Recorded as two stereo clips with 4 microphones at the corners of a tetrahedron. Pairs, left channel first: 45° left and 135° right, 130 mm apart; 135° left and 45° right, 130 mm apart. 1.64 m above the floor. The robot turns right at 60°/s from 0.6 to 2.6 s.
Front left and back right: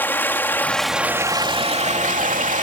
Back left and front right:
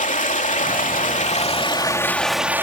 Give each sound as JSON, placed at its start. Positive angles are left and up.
{"t": 0.0, "sound": "running water", "azimuth_deg": 120}